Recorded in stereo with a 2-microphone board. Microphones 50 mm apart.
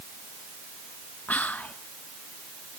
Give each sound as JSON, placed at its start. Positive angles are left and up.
{"t": 1.3, "sound": "whispering", "side_deg": 35, "distance_m": 1.0}